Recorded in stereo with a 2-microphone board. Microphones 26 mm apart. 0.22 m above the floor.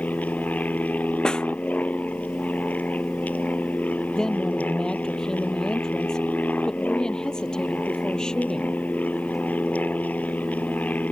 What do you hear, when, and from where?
0.0 s an aircraft: 75° left (ahead or behind)
1.2 s a snare drum: 30° left (ahead or behind)
4.2 s a woman speaking: 30° left (ahead or behind)